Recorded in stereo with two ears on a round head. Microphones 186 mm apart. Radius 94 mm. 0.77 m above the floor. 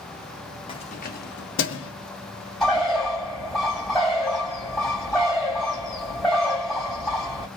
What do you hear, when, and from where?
0.7 s keys jangling: 25° left (ahead or behind), 0.8 m; by 1.9 s 70° left (ahead or behind), 1.0 m
2.6 s a bird: centre (ahead or behind), 1.5 m